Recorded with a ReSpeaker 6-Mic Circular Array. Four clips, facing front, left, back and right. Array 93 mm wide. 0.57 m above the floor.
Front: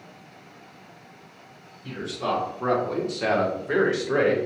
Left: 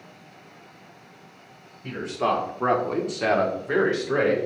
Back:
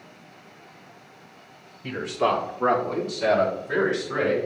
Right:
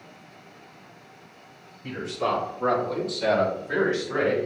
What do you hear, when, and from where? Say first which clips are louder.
1.8 s a man speaking: left 2 dB, back 5 dB; 160° left, 2 m; by 4.4 s 40° left, 3 m